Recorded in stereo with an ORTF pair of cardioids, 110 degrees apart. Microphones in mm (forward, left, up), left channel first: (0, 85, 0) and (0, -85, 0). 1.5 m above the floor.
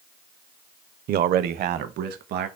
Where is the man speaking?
65° right, 0.7 m; by 2.5 s 70° right, 2.5 m.